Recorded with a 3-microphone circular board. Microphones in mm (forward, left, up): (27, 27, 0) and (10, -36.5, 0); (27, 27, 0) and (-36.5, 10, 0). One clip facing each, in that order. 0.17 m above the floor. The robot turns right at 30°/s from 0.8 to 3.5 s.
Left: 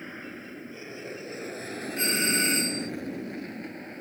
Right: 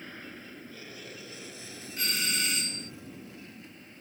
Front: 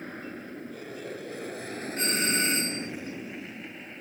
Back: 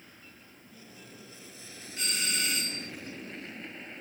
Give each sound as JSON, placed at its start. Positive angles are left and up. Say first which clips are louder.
{"t": 0.0, "sound": "an aircraft", "louder": "left 4 dB, front 15 dB", "azimuth_deg": 5}
{"t": 2.0, "sound": "a doorbell", "louder": "left 6 dB, front 6 dB", "azimuth_deg": 30}